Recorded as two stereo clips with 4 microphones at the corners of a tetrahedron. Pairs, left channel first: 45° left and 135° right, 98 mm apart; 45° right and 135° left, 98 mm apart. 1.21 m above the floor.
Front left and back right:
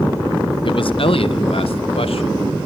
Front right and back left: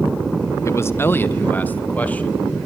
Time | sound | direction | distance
0.7 | a man speaking | 15° left | 0.6 m